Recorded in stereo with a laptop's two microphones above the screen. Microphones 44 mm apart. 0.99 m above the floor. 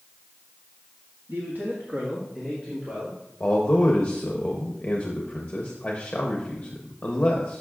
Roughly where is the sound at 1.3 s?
Right.